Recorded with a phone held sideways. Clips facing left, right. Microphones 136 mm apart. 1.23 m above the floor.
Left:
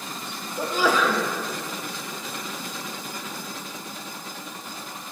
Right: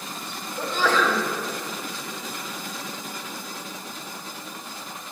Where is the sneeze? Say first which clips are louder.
Left 1 dB; 10° left (ahead or behind), 1.1 m.